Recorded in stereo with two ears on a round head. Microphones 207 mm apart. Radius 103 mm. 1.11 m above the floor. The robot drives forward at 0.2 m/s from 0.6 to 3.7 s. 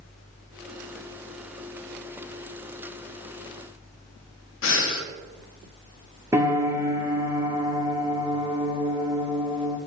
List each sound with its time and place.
4.6 s breathing: 60° left (ahead or behind), 0.9 m
6.3 s a piano: 10° right (ahead or behind), 1.0 m